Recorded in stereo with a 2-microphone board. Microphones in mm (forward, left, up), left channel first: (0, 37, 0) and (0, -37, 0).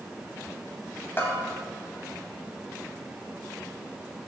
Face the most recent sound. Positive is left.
turn(degrees=30)  # may be behind; listen again after turning